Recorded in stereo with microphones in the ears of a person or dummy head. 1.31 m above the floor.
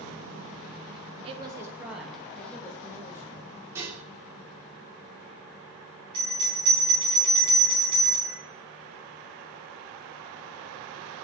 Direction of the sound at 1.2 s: 30° right (ahead or behind).